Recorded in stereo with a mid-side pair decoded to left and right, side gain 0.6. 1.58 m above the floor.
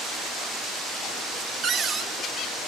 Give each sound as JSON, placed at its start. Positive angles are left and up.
{"t": 1.6, "sound": "a cupboard door", "azimuth_deg": -40, "distance_m": 0.6}